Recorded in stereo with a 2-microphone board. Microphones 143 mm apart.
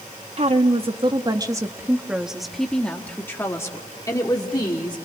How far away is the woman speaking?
About 1.5 m.